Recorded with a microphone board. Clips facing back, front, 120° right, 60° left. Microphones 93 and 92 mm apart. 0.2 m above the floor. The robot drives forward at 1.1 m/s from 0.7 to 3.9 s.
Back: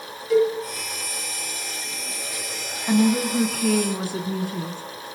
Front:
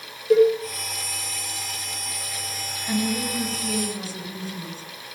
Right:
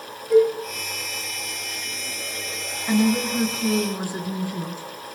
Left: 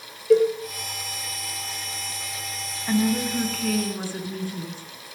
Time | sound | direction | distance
0.3 | a cowbell | 50° left | 5.5 m
2.9 | a woman speaking | 160° left | 1.8 m